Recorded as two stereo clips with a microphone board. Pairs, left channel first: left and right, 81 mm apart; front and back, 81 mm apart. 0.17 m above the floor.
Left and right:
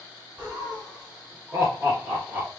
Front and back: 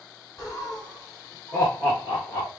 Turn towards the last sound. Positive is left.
turn(degrees=-20)